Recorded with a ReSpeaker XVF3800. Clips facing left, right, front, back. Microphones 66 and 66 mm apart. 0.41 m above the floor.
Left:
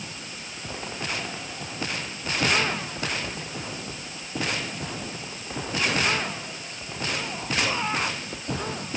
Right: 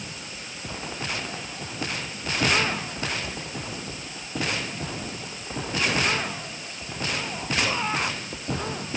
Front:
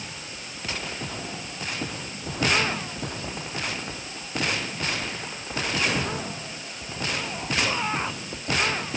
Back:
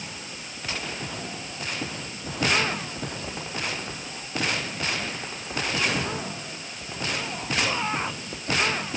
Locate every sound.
Only background noise.